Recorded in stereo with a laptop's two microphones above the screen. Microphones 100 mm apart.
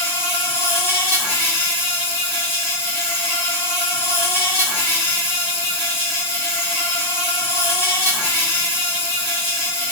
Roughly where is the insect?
Left.